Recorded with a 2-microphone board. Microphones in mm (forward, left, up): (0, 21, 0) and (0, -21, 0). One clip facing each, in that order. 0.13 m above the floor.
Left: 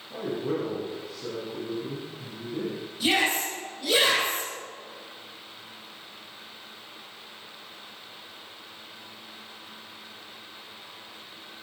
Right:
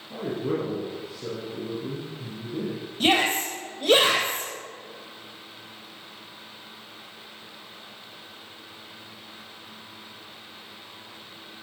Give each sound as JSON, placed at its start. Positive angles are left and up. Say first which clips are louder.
{"t": 0.1, "sound": "a man speaking", "louder": "right 1 dB", "side_deg": 0, "distance_m": 3.5}
{"t": 3.0, "sound": "a shout", "louder": "right 2 dB", "side_deg": -50, "distance_m": 4.0}